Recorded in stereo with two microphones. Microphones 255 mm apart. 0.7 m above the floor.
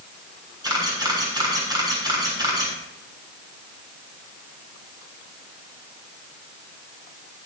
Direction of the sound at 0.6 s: 15° right (ahead or behind).